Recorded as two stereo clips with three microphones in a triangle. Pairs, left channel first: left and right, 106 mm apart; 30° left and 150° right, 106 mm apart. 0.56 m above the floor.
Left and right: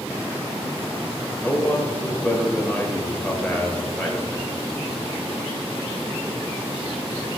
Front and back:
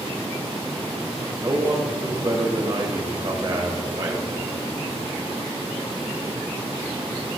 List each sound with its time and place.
1.4 s a man speaking: 165° left, 2 m